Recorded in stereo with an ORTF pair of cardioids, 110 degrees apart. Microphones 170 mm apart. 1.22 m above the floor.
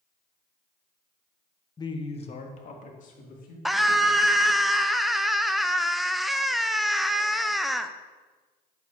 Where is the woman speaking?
20° left, 0.8 m; by 3.5 s 55° left, 2.5 m.